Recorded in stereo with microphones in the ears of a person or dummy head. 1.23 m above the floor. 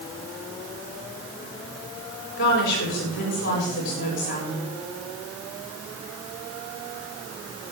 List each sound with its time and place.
2.4 s a woman speaking: 65° left (ahead or behind), 6.5 m